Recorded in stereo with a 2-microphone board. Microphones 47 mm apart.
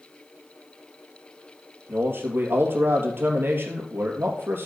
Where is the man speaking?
50° right (ahead or behind), 2.5 m.